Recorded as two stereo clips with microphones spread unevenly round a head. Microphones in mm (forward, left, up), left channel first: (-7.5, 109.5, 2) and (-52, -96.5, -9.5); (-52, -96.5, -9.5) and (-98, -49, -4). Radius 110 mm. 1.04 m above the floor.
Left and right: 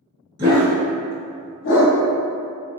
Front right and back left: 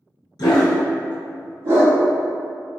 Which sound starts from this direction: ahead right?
A dog barking, at 0.4 s.